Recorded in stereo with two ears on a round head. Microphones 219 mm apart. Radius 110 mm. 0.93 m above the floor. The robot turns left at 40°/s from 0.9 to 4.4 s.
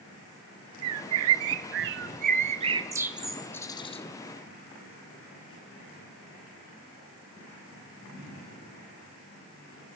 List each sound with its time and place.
0.8 s a bird: 70° right (ahead or behind), 0.7 m; by 4.0 s 25° left (ahead or behind), 0.7 m